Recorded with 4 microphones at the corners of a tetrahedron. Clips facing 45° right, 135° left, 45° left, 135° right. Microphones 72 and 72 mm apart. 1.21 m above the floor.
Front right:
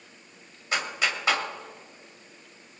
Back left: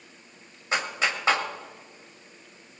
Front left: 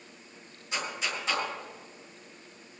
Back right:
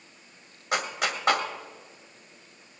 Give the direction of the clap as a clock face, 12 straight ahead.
5 o'clock.